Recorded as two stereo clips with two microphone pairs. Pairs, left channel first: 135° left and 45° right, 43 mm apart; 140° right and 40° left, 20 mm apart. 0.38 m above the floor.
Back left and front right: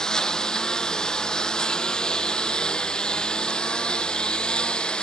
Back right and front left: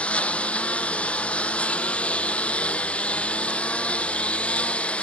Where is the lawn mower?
150° right; by 5.0 s 155° right.